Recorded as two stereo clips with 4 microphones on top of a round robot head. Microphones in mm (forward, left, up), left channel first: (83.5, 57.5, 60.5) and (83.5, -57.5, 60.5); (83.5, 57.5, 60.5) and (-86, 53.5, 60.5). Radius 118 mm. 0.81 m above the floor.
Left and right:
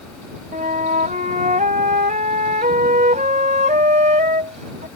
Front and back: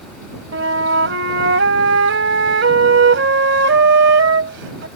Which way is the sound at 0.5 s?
145° right.